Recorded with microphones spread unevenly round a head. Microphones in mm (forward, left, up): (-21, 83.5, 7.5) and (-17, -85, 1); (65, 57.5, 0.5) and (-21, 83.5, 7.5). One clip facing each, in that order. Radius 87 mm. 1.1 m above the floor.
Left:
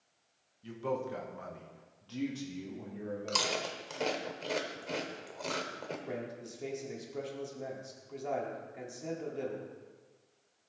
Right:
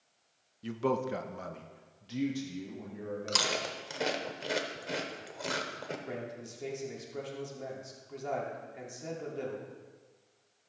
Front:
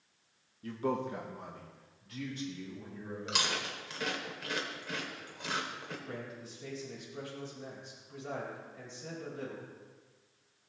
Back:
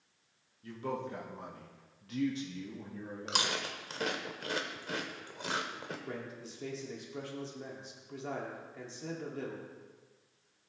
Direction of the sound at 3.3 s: 170° right.